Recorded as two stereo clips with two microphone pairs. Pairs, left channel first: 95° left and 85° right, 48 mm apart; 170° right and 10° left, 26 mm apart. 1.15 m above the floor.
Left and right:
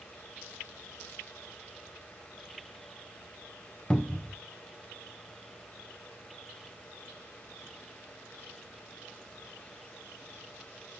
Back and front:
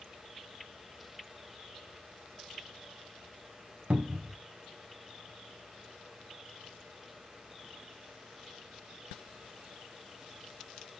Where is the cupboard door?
25° left, 0.9 m.